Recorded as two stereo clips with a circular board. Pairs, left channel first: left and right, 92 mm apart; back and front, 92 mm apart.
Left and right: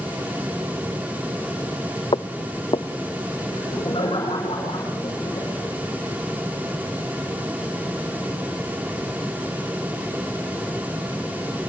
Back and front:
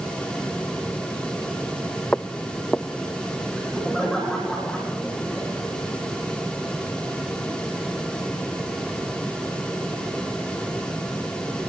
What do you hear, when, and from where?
2.1 s footsteps: 105° left, 0.6 m
3.5 s laughter: 95° left, 9 m